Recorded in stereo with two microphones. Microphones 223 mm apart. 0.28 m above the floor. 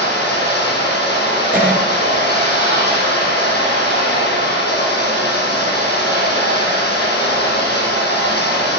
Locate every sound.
0.0 s running water: 45° left (ahead or behind), 4 m
1.5 s a cough: 5° right (ahead or behind), 3.5 m